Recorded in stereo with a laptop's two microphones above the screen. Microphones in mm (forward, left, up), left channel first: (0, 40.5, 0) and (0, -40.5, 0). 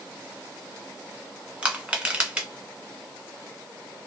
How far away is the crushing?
About 1.2 m.